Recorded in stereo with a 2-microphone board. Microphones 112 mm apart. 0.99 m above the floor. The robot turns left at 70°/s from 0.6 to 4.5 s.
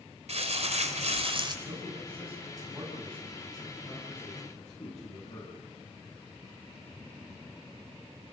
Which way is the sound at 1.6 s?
85° right.